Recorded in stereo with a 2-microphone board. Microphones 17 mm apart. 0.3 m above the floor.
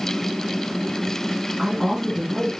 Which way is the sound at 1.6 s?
30° right (ahead or behind).